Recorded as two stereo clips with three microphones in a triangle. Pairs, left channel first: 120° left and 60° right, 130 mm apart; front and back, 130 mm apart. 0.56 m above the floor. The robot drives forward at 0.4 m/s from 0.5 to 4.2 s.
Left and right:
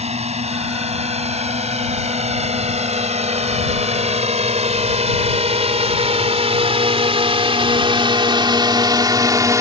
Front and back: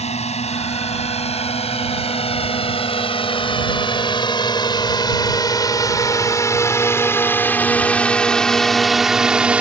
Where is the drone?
30° right; by 9.6 s 105° right.